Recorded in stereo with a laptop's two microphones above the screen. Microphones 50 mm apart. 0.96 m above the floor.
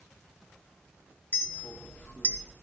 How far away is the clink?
About 1.5 m.